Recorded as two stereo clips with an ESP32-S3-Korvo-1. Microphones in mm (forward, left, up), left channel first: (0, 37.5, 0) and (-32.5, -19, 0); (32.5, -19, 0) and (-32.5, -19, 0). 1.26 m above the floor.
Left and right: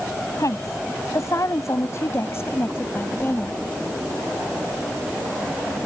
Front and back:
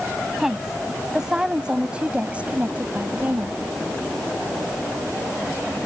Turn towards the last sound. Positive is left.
turn(degrees=120)